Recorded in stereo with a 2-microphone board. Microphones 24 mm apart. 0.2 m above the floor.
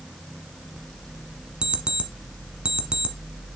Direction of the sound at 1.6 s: 45° right (ahead or behind).